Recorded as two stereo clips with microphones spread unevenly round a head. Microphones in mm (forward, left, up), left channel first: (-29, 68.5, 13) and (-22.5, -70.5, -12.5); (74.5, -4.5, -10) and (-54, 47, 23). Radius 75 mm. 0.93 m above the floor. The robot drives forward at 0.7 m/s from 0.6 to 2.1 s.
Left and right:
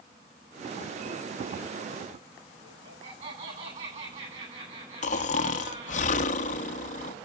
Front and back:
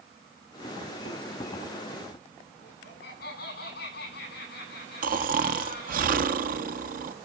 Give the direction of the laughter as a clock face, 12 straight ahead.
1 o'clock.